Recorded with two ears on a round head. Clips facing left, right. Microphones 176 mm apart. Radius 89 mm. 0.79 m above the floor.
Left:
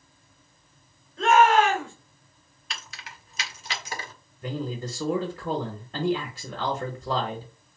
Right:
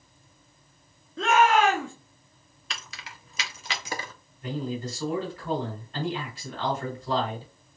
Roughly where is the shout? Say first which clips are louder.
Left 2 dB; right.